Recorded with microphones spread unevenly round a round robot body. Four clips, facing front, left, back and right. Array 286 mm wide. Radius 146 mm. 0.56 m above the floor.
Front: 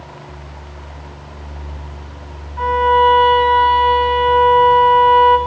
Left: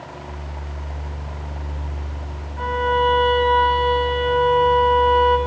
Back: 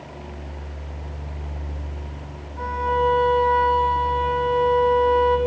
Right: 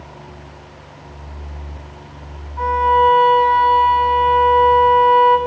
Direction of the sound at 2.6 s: 45° right.